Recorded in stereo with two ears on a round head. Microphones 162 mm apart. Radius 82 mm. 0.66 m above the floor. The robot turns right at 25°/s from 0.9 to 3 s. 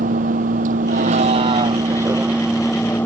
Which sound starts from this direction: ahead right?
A vehicle, at 0.0 s.